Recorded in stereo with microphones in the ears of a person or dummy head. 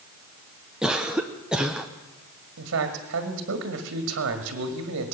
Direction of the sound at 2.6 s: 65° right (ahead or behind).